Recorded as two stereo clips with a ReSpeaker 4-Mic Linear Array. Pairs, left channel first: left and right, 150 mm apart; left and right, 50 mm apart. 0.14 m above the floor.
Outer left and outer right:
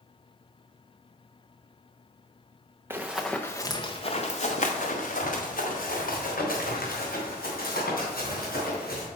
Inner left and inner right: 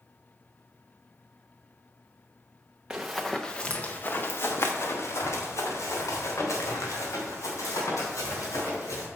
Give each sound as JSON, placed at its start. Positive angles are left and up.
{"t": 2.9, "sound": "running footsteps", "side_deg": -15, "distance_m": 0.9}